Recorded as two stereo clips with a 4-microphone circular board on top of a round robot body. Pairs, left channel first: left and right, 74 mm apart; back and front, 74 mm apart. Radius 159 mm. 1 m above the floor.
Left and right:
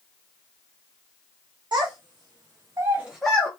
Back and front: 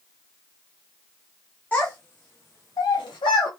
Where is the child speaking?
110° right, 1.5 m; by 3.5 s 155° left, 0.7 m.